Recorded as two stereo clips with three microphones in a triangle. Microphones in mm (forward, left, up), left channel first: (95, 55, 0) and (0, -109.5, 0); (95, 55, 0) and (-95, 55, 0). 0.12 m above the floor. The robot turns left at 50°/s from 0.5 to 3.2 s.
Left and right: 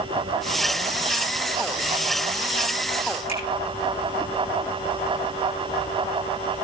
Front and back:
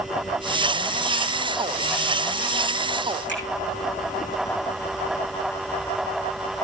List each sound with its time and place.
3.3 s a finger snap: straight ahead, 5 m